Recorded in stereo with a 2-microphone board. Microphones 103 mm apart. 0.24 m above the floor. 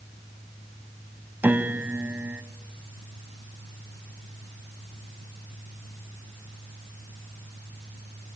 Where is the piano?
20° right (ahead or behind), 0.8 m.